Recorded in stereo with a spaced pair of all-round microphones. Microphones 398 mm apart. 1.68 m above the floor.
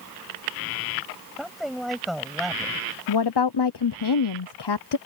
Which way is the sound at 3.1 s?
75° left (ahead or behind).